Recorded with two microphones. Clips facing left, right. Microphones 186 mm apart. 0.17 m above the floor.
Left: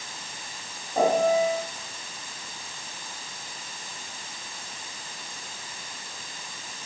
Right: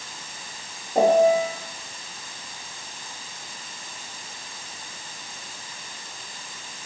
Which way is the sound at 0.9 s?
50° right (ahead or behind).